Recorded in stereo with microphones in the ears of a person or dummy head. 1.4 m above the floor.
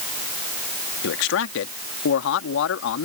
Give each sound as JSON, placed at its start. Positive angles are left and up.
{"t": 1.0, "sound": "a man speaking", "side_deg": 70}